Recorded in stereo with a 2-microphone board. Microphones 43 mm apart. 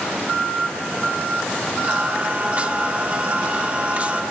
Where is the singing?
35° right (ahead or behind), 1.3 m.